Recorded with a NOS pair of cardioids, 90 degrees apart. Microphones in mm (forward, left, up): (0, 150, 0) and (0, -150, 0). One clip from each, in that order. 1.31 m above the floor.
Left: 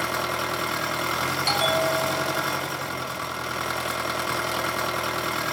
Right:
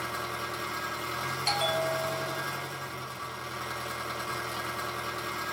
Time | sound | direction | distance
0.0 | an engine running | 60° left | 1.1 m
1.5 | a bell | 15° left | 0.5 m